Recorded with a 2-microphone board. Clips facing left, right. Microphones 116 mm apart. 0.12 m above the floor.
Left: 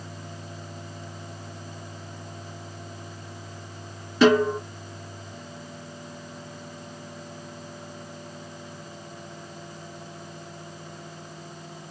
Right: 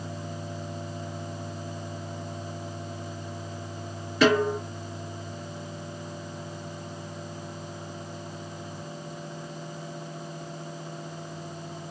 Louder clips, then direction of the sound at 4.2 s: Left 3 dB; 30° left (ahead or behind).